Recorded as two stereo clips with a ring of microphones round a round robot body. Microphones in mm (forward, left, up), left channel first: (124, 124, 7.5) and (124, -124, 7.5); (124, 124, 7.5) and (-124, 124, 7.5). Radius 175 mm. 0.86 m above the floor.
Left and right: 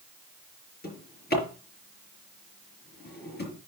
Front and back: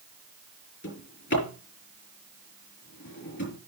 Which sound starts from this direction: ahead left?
A drawer, at 0.8 s.